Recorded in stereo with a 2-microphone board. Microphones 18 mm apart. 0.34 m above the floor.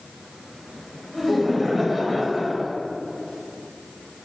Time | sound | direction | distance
1.1 | laughter | 5° left (ahead or behind) | 1.9 m